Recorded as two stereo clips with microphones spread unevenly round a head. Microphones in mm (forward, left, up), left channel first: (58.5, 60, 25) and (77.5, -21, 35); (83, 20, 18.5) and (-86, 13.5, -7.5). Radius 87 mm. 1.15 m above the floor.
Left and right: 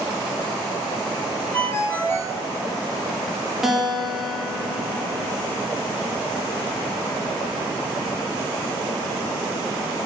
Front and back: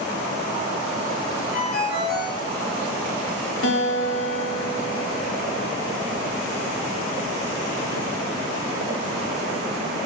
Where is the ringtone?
35° left, 4 m.